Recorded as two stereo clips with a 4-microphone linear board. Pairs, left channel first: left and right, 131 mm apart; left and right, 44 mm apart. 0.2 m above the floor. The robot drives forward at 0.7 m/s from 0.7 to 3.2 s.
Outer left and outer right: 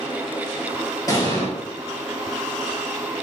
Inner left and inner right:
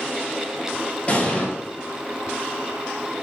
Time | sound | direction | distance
1.1 | an explosion | 30° left (ahead or behind) | 3.5 m